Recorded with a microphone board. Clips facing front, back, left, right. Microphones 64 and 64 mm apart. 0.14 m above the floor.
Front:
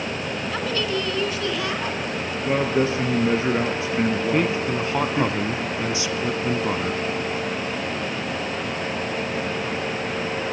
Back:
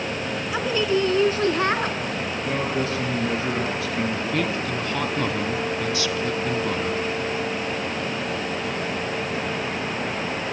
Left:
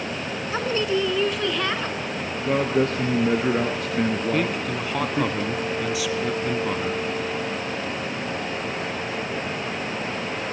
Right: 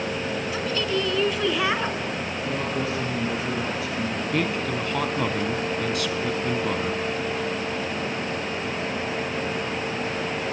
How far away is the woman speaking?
About 1.3 m.